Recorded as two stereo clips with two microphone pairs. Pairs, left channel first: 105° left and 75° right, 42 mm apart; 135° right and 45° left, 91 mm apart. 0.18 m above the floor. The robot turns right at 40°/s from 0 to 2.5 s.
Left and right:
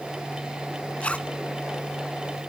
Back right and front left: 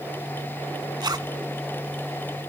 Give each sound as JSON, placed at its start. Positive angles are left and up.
{"t": 1.0, "sound": "a zipper", "azimuth_deg": 60, "distance_m": 0.6}